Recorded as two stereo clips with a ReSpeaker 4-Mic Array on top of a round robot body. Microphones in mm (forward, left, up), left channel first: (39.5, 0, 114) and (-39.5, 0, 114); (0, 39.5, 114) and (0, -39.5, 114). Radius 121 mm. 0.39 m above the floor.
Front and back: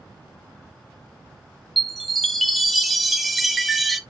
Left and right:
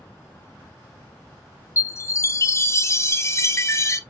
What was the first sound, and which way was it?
A chime, 90° left.